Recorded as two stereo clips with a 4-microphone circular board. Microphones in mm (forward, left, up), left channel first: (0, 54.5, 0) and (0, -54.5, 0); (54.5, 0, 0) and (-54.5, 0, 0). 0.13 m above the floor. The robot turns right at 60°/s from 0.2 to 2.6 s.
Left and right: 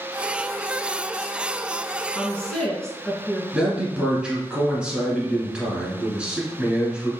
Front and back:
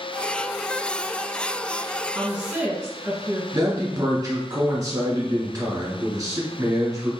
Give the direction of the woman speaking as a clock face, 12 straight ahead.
8 o'clock.